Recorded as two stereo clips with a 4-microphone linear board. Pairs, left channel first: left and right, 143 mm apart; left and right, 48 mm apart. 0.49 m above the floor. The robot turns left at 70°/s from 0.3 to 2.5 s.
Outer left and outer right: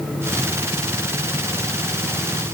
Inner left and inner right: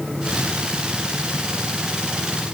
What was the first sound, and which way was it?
Only background noise.